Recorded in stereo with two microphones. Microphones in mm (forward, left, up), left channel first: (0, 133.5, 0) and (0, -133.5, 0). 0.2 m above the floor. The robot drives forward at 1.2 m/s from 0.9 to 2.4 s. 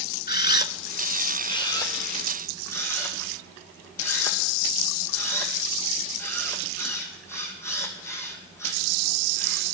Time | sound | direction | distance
0.3 | a camera shutter | 35° left (ahead or behind) | 0.6 m